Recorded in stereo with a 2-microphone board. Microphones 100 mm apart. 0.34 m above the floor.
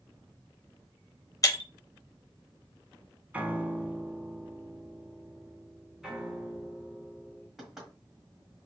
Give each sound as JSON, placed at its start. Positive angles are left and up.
{"t": 1.4, "sound": "breaking glass", "side_deg": 35, "distance_m": 0.7}
{"t": 3.3, "sound": "a piano", "side_deg": -15, "distance_m": 0.5}
{"t": 6.0, "sound": "a piano", "side_deg": -5, "distance_m": 1.3}
{"t": 7.6, "sound": "knocking", "side_deg": -5, "distance_m": 1.7}